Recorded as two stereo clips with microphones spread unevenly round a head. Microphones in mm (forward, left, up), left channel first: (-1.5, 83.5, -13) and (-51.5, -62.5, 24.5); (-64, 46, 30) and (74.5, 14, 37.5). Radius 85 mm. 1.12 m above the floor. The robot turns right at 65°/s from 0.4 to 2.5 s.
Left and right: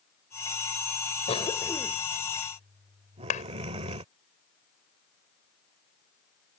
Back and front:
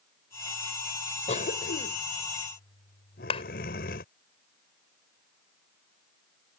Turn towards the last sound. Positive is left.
turn(degrees=115)